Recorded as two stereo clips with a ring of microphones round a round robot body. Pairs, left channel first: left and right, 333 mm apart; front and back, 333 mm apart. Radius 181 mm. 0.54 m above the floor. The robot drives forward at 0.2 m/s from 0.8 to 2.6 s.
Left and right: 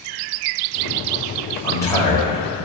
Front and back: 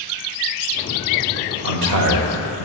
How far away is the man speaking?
About 1.7 m.